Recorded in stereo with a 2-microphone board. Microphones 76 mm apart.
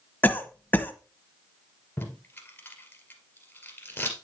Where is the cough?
25° left (ahead or behind), 1.0 m.